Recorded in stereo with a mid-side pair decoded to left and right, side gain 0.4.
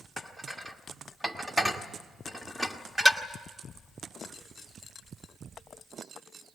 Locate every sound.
0.2 s dishes clattering: 10° right, 1.7 m